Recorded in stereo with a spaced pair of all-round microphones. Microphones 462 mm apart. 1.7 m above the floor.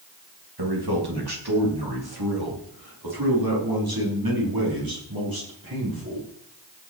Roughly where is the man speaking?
Right.